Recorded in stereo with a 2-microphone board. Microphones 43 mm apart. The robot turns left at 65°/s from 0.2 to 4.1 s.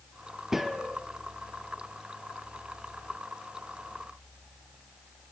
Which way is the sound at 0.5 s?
10° right (ahead or behind).